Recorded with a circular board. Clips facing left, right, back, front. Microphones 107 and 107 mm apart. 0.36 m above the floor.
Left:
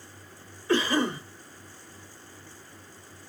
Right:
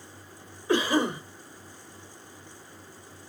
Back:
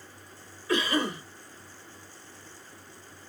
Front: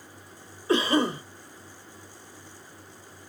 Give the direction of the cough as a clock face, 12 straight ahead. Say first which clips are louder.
Right 1 dB, front 4 dB; 1 o'clock.